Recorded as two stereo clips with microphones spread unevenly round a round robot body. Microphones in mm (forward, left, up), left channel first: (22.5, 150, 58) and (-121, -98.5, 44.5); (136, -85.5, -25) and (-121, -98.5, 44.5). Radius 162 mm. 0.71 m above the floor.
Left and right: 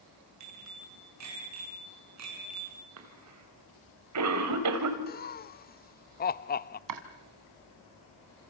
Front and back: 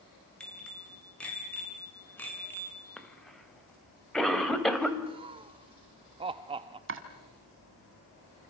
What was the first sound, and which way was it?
A bicycle bell, 85° right.